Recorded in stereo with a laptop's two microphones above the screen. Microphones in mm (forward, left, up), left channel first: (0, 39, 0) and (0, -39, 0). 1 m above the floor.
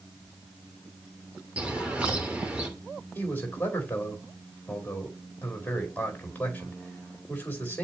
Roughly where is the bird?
Centre.